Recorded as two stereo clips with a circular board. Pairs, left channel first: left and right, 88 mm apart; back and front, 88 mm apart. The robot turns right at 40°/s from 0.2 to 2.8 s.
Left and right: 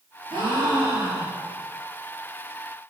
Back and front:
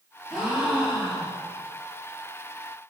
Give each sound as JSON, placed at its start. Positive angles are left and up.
{"t": 0.3, "sound": "a gasp", "azimuth_deg": -85, "distance_m": 5.5}